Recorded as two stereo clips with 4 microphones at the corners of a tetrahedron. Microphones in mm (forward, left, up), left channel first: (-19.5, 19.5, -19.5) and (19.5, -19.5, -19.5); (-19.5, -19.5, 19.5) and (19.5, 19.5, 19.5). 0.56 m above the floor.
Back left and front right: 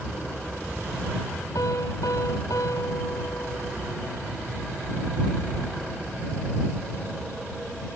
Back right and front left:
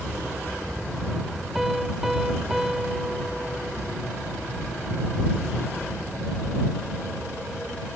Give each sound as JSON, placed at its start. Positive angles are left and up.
{"t": 1.6, "sound": "a piano", "azimuth_deg": 130}